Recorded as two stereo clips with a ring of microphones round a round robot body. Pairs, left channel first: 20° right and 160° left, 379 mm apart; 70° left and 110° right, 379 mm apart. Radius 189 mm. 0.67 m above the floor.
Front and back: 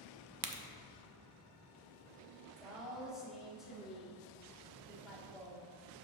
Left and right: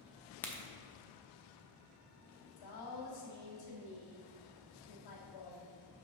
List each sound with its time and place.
0.4 s a crack: 150° left, 0.7 m
2.6 s a woman speaking: 70° left, 1.7 m